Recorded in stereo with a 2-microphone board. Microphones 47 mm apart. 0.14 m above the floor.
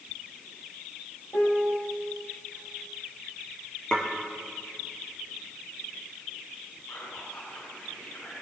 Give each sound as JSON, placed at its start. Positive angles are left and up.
{"t": 1.3, "sound": "a piano", "side_deg": 70, "distance_m": 3.5}
{"t": 3.9, "sound": "dishes clattering", "side_deg": 20, "distance_m": 2.0}
{"t": 6.9, "sound": "whispering", "side_deg": 55, "distance_m": 4.5}